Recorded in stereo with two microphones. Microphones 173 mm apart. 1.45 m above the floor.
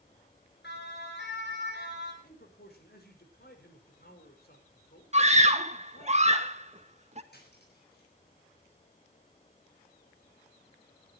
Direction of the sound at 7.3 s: 70° left (ahead or behind).